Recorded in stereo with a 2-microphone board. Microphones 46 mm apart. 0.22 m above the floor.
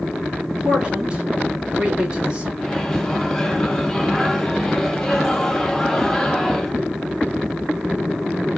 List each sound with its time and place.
0.6 s a man speaking: 25° right (ahead or behind), 2.5 m
2.6 s a microwave: 10° left (ahead or behind), 1.5 m